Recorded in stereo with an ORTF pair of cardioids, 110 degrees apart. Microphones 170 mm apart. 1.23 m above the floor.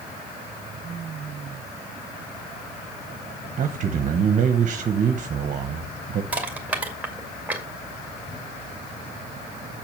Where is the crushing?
10° right, 2 m.